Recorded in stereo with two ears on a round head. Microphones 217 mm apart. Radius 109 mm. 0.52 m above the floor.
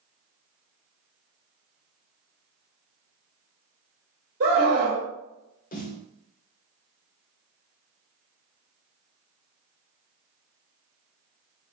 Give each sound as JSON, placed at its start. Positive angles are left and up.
{"t": 4.4, "sound": "a scream", "side_deg": -45, "distance_m": 1.6}
{"t": 5.7, "sound": "a snare drum", "side_deg": 35, "distance_m": 0.8}